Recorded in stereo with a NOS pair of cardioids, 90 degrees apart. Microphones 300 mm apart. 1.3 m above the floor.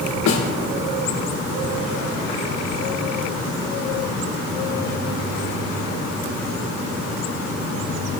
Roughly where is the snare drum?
Left.